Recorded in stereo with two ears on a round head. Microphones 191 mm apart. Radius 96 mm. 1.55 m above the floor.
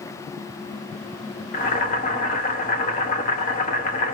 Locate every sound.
1.5 s boiling: 40° left (ahead or behind), 1.0 m